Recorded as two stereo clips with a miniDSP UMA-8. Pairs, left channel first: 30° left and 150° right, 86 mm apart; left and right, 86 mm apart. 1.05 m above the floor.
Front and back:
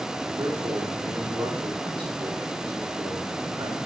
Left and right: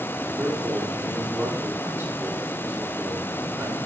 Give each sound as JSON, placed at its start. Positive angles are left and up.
{"t": 0.4, "sound": "a man speaking", "azimuth_deg": -150, "distance_m": 2.0}